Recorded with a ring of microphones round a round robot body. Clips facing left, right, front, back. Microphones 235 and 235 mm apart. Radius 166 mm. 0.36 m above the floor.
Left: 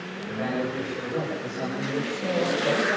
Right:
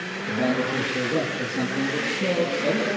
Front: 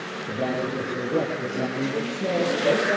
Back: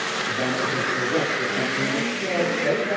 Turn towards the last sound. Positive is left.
turn(degrees=-75)